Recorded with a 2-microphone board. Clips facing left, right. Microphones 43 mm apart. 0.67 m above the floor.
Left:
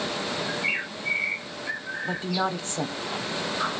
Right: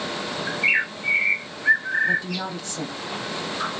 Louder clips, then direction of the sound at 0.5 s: Right 10 dB; 70° right (ahead or behind).